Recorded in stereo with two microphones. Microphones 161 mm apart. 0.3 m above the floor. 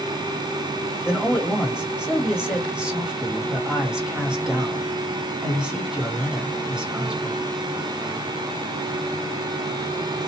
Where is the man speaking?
5° right (ahead or behind), 1.5 m.